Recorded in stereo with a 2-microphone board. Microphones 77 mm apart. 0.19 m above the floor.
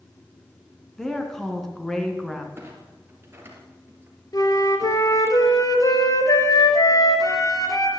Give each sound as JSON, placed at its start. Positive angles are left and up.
{"t": 1.0, "sound": "a woman speaking", "side_deg": 5, "distance_m": 2.5}
{"t": 2.6, "sound": "a clunk", "side_deg": -30, "distance_m": 2.5}
{"t": 4.3, "sound": "a flute", "side_deg": 50, "distance_m": 1.9}